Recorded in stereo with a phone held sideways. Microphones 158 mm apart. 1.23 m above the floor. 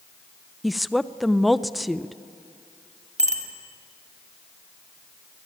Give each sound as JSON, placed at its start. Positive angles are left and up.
{"t": 0.6, "sound": "a woman speaking", "side_deg": 0, "distance_m": 0.5}
{"t": 3.2, "sound": "a bicycle bell", "side_deg": -45, "distance_m": 2.5}